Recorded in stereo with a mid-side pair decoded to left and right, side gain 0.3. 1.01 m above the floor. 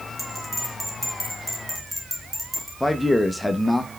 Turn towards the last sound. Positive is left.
turn(degrees=15)